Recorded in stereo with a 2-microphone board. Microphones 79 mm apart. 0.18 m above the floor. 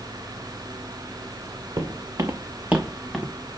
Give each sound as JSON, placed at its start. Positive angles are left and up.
{"t": 1.8, "sound": "footsteps", "side_deg": -55, "distance_m": 1.1}